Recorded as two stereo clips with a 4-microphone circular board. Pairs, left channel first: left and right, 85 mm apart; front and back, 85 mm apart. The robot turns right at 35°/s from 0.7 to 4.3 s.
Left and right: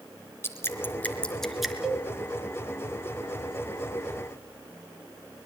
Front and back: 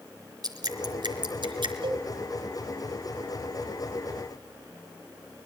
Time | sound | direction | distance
0.4 | dripping | 150° left | 3.5 m
1.8 | a cowbell | 175° right | 2.5 m